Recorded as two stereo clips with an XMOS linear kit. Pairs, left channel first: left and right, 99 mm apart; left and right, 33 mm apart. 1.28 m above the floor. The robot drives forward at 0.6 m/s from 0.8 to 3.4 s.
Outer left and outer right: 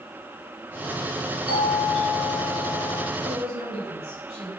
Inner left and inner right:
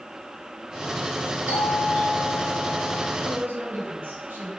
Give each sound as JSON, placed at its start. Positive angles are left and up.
{"t": 1.5, "sound": "a doorbell", "side_deg": -70, "distance_m": 6.0}
{"t": 3.2, "sound": "a woman speaking", "side_deg": -80, "distance_m": 5.5}